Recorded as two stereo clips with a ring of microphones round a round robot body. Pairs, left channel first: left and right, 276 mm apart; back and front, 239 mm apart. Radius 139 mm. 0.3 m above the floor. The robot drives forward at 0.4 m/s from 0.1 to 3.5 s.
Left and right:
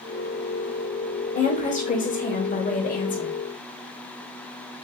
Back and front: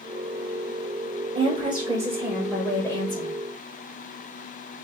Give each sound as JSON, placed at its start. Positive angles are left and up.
{"t": 1.4, "sound": "a woman speaking", "azimuth_deg": 45, "distance_m": 1.0}